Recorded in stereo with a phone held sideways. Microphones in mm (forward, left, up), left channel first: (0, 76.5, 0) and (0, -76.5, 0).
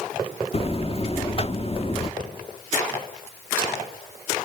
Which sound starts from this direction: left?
A buzzer, at 0.5 s.